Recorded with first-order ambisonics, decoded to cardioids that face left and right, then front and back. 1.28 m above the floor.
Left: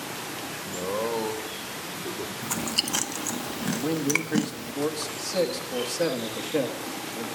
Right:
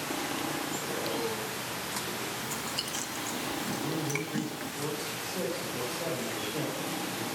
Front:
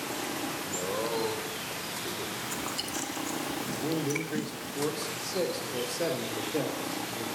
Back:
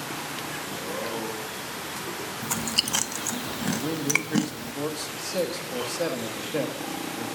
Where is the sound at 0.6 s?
85° left, 1.4 m; by 2.3 s 110° left, 2.5 m.